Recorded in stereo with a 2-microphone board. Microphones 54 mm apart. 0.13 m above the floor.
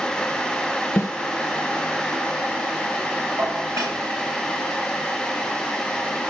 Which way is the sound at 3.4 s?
85° right.